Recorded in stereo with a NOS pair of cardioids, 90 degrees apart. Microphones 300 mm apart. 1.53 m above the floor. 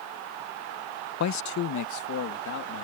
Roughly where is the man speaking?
Ahead left.